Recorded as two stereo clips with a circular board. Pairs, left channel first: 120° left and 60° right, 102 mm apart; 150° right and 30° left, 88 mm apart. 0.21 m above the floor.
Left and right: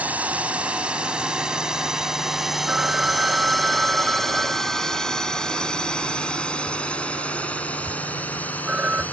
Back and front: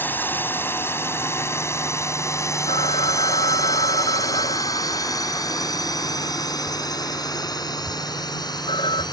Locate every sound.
0.0 s a drone: 115° right; by 9.1 s 170° right
2.7 s a phone ringing: 140° right